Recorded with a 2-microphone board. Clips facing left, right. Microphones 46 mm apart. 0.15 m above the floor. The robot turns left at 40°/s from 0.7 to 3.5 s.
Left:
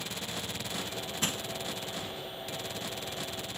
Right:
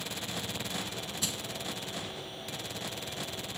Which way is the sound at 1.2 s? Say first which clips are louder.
Left 5 dB; 45° left (ahead or behind).